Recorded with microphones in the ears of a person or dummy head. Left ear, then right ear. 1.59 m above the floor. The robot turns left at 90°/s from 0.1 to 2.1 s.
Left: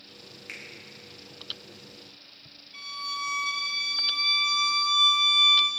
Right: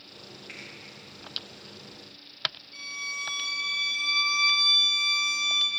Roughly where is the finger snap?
Left.